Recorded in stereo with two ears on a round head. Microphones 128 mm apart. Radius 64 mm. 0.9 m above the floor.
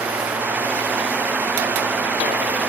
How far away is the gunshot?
No gunshot in this recording.